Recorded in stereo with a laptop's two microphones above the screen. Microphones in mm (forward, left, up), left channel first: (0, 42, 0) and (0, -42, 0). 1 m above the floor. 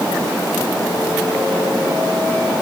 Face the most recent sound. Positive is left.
No sound to turn to.